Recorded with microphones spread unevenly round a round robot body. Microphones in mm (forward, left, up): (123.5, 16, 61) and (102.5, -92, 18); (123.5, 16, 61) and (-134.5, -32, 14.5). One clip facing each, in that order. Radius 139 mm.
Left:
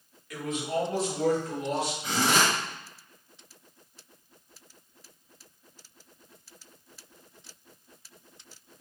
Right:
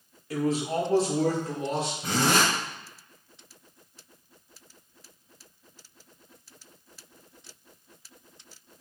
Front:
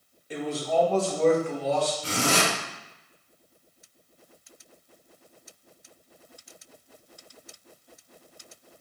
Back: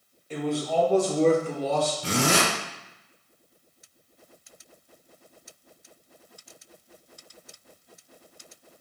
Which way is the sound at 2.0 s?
140° right.